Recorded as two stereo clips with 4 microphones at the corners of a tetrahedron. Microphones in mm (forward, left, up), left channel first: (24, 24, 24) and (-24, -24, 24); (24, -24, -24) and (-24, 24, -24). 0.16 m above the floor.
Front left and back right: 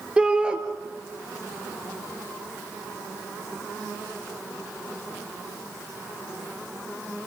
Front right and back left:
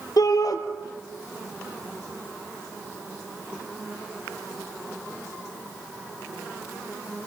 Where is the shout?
60° right, 3 m.